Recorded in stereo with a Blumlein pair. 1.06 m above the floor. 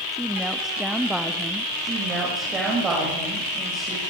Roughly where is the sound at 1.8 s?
Ahead.